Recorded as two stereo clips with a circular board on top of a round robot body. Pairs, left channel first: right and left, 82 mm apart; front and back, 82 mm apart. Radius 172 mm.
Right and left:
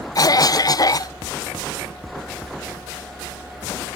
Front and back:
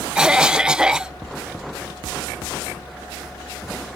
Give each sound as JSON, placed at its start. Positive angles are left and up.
{"t": 0.1, "sound": "a cough", "azimuth_deg": -100}